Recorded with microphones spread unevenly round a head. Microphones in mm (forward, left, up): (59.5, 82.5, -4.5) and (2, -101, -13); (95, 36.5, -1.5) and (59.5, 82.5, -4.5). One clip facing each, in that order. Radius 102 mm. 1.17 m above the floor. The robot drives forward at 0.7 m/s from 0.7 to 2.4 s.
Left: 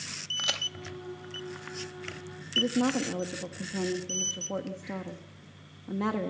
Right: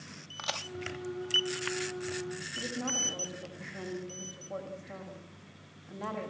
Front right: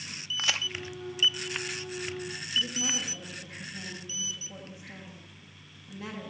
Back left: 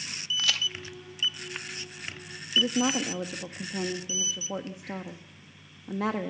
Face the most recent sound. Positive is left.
turn(degrees=105)